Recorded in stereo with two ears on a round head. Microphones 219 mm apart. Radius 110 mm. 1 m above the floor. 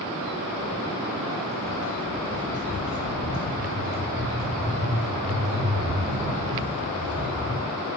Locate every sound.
0.6 s footsteps: 35° right (ahead or behind), 7 m; by 7.5 s 55° right (ahead or behind), 14 m